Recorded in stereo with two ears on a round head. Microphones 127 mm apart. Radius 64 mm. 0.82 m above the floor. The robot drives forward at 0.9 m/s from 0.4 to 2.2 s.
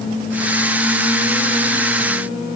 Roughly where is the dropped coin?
I don't hear a dropped coin.